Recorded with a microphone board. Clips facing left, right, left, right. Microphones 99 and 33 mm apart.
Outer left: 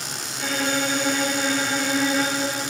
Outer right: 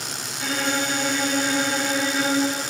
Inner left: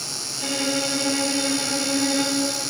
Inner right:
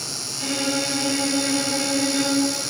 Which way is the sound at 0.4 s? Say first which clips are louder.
Outer left 1 dB, even; 5° right (ahead or behind).